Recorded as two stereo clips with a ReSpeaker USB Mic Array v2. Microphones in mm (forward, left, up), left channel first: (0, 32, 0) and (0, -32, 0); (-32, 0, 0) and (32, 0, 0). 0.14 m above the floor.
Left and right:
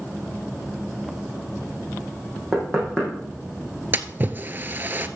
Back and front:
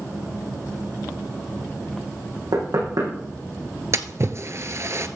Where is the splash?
35° right, 0.6 m.